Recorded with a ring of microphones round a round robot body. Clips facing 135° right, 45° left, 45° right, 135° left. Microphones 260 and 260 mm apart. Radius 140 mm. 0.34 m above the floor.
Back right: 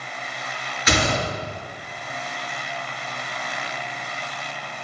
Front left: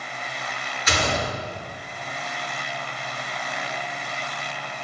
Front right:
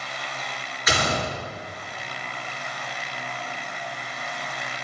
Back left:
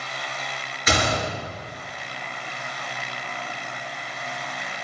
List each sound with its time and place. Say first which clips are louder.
0.9 s a gunshot: back right 3 dB, back left 2 dB; 165° right, 3.5 m